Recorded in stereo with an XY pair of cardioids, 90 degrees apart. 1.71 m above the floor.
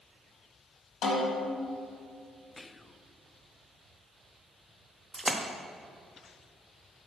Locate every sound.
1.0 s a snare drum: 70° left, 1.8 m
2.6 s whispering: 20° left, 0.5 m
5.1 s a splash: 15° right, 0.7 m